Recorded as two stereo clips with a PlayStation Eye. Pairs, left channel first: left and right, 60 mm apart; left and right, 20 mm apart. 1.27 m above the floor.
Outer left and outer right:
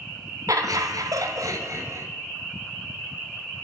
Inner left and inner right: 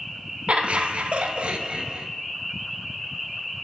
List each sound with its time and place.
0.5 s laughter: 65° right (ahead or behind), 1.2 m; by 2.1 s 50° right (ahead or behind), 1.5 m